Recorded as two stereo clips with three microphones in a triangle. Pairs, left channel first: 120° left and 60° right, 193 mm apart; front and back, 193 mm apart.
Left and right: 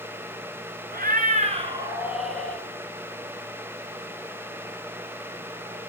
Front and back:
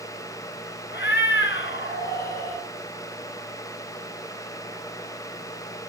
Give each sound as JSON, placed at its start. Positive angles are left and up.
{"t": 0.9, "sound": "a cat meowing", "azimuth_deg": -25, "distance_m": 1.3}